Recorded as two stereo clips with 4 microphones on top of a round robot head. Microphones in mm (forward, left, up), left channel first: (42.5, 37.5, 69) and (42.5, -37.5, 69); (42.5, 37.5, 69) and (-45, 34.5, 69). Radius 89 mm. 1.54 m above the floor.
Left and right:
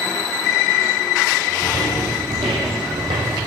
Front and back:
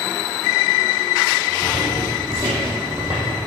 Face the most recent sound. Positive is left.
turn(degrees=-95)